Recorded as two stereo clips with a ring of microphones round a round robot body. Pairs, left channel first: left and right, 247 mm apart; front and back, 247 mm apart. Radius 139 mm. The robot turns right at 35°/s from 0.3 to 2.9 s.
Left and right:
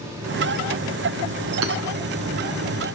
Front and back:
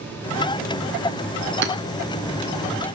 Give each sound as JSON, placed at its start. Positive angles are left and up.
{"t": 1.6, "sound": "hammering", "azimuth_deg": -135, "distance_m": 1.1}